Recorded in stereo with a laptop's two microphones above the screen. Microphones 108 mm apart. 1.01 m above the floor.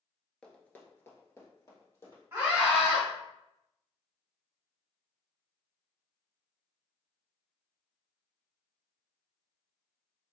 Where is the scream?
20° right (ahead or behind), 1.6 m.